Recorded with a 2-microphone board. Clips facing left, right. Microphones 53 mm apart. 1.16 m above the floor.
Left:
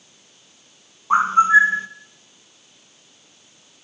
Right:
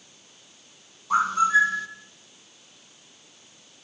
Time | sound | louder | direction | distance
1.1 | a bird | left 6 dB | 30° left (ahead or behind) | 1.4 m